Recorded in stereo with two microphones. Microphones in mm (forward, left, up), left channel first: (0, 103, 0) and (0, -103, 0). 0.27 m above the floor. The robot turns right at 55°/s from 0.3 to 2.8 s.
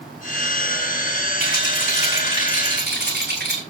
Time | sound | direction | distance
1.4 | a rattle | 135° right | 8.5 m